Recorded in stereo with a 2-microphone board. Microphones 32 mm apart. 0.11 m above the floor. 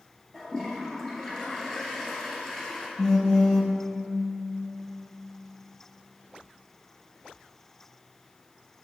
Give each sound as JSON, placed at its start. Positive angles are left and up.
{"t": 0.3, "sound": "a toilet flushing", "side_deg": 15, "distance_m": 1.5}
{"t": 3.0, "sound": "a phone buzzing", "side_deg": 20, "distance_m": 0.9}